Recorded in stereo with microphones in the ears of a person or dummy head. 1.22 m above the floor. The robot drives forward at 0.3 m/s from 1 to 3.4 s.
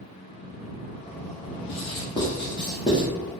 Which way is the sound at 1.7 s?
25° left (ahead or behind).